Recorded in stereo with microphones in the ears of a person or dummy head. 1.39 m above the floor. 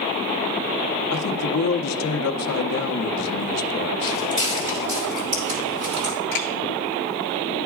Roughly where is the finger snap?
Left.